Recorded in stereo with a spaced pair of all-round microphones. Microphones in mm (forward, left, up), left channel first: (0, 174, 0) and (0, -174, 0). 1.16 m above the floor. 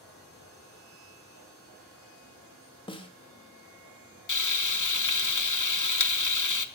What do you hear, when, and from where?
2.9 s a snare drum: 15° left (ahead or behind), 1.2 m
4.3 s frying: 60° left (ahead or behind), 0.8 m